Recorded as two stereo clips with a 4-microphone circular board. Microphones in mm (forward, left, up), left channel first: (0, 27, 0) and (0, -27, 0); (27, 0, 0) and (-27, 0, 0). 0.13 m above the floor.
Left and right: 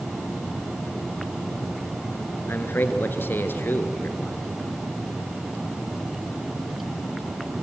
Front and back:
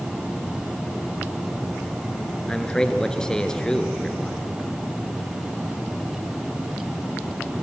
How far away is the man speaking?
About 1.5 m.